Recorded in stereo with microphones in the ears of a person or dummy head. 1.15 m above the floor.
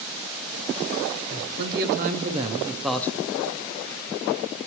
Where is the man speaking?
60° right (ahead or behind), 1.1 m; by 3.1 s 15° left (ahead or behind), 0.6 m.